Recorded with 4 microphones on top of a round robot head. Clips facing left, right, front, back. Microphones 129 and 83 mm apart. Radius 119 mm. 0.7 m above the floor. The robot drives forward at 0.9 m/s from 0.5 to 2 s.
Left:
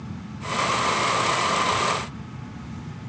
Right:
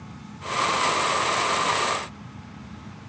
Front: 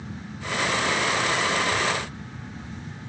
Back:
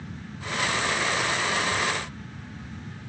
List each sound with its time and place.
Only background noise.